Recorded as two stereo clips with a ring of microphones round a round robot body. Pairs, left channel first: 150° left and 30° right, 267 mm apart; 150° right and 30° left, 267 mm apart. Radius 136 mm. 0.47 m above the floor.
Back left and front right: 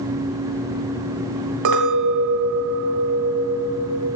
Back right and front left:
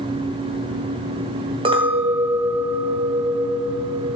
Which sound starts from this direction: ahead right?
A clink, at 1.6 s.